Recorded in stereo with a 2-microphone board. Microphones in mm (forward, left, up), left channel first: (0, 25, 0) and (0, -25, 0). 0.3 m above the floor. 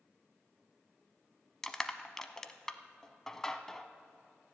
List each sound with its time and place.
1.6 s crushing: 10° left (ahead or behind), 0.7 m